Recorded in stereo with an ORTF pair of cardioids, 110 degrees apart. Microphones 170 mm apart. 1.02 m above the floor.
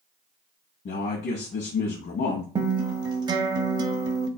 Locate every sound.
0.8 s a man speaking: 55° left, 1.0 m
2.5 s a guitar: 25° right, 0.6 m